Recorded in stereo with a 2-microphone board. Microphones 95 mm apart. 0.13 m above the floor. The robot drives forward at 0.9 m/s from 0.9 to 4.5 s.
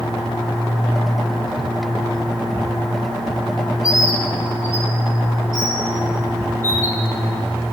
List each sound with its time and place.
3.8 s a bird: 45° left (ahead or behind), 0.7 m; by 7.0 s 30° left (ahead or behind), 1.0 m